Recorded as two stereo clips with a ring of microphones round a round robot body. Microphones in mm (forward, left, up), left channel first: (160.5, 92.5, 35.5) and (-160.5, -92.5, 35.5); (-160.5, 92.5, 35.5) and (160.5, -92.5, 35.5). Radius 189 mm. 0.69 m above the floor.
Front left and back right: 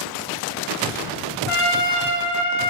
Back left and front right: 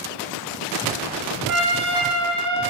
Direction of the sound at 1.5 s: 5° left.